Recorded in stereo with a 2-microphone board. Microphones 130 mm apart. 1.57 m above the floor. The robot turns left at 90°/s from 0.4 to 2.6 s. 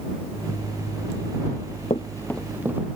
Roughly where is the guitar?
I don't hear a guitar.